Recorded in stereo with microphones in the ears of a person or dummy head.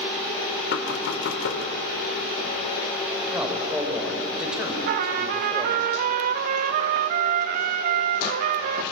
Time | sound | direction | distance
0.7 | knocking | 70° left (ahead or behind) | 2.5 m
3.3 | a man speaking | 5° right (ahead or behind) | 4.5 m
4.9 | a trumpet | 55° right (ahead or behind) | 1.1 m